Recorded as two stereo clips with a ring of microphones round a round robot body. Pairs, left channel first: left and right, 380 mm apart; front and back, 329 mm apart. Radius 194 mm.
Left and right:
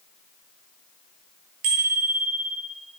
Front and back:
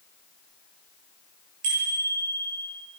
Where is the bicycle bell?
130° right, 8.5 m.